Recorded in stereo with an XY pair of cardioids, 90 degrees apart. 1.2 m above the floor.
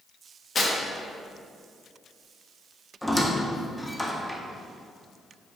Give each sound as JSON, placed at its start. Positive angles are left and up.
{"t": 0.6, "sound": "tearing paper", "azimuth_deg": 45, "distance_m": 1.1}
{"t": 3.0, "sound": "a squeak", "azimuth_deg": 5, "distance_m": 0.5}